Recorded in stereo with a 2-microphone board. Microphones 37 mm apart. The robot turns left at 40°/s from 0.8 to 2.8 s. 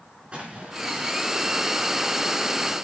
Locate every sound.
0.3 s an explosion: 30° right (ahead or behind), 5 m; by 1.2 s 45° right (ahead or behind), 5 m